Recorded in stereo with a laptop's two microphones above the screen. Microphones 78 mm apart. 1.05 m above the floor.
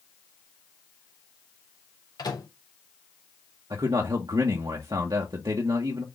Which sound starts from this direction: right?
A man speaking, at 3.7 s.